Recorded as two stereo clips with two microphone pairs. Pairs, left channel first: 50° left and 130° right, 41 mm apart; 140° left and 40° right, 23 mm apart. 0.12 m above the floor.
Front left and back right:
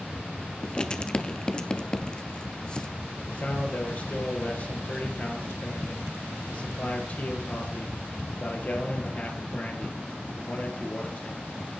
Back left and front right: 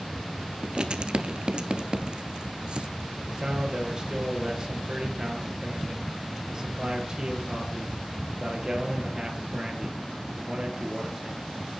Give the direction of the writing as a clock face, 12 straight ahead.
12 o'clock.